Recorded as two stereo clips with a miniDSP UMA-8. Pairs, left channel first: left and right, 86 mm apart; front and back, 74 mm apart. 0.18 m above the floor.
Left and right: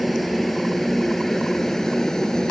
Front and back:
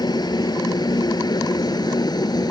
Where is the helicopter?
Straight ahead; by 2.5 s 10° left.